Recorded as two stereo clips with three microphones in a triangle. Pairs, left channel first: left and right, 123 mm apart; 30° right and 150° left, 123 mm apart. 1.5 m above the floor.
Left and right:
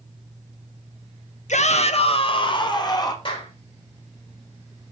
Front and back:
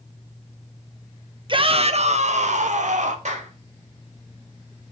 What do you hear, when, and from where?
1.5 s a shout: 105° left, 1.2 m; by 3.1 s 150° left, 2 m
3.2 s a clap: 135° left, 4 m